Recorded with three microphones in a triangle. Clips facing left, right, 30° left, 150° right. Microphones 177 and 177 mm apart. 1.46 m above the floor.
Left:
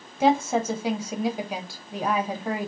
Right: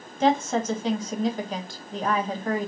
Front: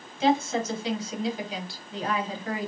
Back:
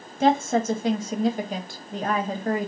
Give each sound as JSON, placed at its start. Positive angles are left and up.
{"t": 0.2, "sound": "a woman speaking", "azimuth_deg": 170, "distance_m": 1.1}